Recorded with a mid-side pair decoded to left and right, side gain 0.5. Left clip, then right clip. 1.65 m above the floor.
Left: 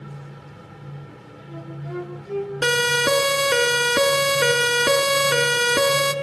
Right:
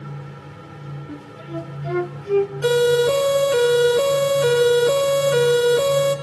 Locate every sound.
0.0 s a fan: 30° right, 1.7 m
1.1 s a flute: 60° right, 2.5 m
2.6 s a siren: 70° left, 4 m